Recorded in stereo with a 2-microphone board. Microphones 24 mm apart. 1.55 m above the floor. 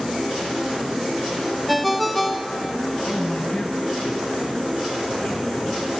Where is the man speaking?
60° left (ahead or behind), 1.8 m.